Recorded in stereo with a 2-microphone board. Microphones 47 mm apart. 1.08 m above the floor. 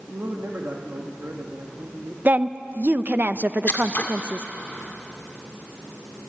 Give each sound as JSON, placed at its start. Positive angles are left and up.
{"t": 0.1, "sound": "a man speaking", "side_deg": -60, "distance_m": 2.0}
{"t": 2.2, "sound": "a woman speaking", "side_deg": -40, "distance_m": 0.7}
{"t": 3.7, "sound": "scissors", "side_deg": 40, "distance_m": 1.9}